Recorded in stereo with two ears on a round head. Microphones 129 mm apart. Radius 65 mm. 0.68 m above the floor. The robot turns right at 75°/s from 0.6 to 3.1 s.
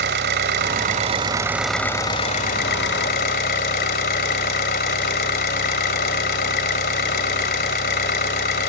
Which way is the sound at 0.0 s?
80° right.